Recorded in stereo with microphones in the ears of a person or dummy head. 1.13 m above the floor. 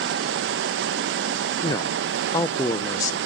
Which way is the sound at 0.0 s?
55° right (ahead or behind).